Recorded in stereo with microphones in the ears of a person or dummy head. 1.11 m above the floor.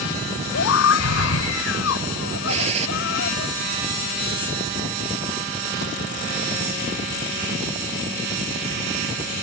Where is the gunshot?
35° right (ahead or behind).